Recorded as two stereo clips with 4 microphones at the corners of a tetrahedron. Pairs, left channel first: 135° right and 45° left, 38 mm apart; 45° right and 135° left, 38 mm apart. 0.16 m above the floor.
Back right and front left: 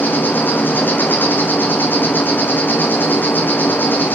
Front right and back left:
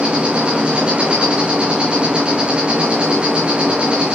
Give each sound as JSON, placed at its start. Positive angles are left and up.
{"t": 0.0, "sound": "an insect", "azimuth_deg": -165, "distance_m": 1.5}